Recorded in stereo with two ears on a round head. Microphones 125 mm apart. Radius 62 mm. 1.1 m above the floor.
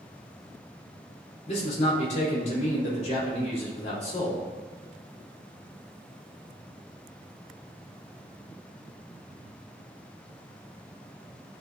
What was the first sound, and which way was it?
A man speaking, 50° left (ahead or behind).